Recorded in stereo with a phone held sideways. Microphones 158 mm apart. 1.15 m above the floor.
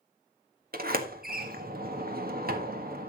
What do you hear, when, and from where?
0.7 s a sliding door: 70° right (ahead or behind), 1.6 m